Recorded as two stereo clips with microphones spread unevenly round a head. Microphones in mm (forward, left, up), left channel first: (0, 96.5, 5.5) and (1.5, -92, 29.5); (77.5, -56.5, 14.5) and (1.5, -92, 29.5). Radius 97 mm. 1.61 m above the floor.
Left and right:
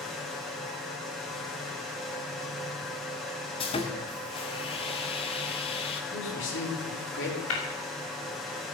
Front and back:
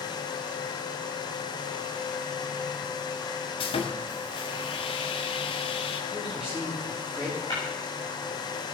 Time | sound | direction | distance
3.6 | sawing | 30° left | 1.5 m
6.1 | a man speaking | 120° left | 4.5 m
7.5 | tapping | 100° left | 5.5 m